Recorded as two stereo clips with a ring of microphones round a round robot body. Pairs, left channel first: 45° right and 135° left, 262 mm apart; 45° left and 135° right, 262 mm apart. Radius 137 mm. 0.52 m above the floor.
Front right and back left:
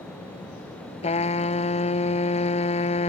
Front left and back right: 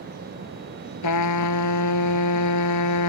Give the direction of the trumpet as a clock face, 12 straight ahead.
11 o'clock.